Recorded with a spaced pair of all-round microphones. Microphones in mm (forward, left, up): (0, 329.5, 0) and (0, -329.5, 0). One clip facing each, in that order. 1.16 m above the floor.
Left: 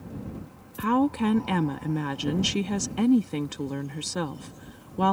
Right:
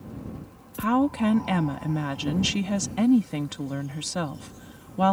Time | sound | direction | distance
0.8 | a woman speaking | 15° right (ahead or behind) | ?